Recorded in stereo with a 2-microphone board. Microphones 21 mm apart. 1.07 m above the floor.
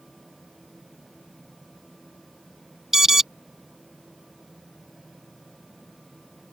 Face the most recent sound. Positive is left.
turn(degrees=-20)  # may be behind; listen again after turning